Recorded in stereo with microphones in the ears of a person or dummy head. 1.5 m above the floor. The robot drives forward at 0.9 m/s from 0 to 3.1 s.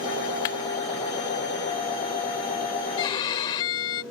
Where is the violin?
25° left (ahead or behind).